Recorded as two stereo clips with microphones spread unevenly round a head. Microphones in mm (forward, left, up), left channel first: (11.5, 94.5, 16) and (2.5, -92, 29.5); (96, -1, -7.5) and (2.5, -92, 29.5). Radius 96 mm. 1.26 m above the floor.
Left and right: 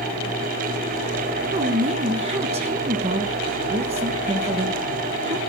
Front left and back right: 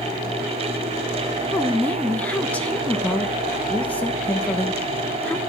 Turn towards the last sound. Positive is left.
turn(degrees=-35)